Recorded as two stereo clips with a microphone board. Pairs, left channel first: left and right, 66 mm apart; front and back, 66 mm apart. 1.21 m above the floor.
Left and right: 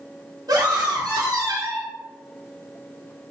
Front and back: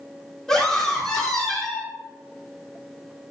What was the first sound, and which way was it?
A scream, 85° right.